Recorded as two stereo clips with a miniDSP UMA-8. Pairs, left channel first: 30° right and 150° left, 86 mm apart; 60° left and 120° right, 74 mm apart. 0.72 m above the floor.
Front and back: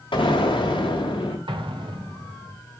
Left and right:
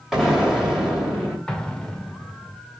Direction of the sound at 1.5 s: 140° left.